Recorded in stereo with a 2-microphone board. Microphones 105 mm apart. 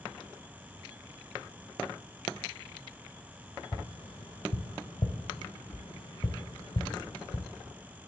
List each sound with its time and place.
3.7 s tapping: 65° left (ahead or behind), 0.9 m